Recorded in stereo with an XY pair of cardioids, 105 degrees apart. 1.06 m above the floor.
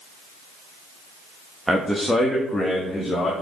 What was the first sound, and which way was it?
A man speaking, 10° right.